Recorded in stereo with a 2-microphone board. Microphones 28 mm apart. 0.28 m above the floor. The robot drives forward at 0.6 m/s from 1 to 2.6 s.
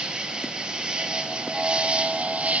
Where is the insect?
30° right (ahead or behind), 1.9 m; by 2.6 s 50° right (ahead or behind), 1.2 m.